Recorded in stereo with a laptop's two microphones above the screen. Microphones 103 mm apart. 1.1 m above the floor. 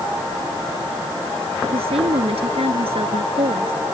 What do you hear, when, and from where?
1.6 s a woman speaking: 90° right